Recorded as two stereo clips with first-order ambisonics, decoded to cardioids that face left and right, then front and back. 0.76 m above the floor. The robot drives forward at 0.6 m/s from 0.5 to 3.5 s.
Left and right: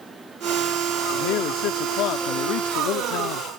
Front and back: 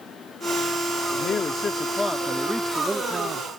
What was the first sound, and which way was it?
A man speaking, 60° left.